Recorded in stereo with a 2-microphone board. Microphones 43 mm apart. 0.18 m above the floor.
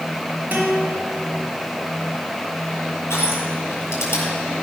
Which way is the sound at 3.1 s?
70° left (ahead or behind).